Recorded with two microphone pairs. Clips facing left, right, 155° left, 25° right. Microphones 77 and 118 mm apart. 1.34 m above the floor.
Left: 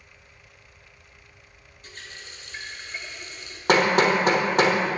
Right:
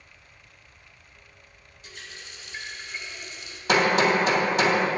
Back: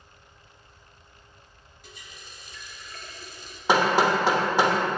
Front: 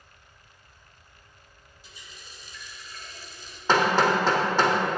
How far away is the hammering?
About 1.3 m.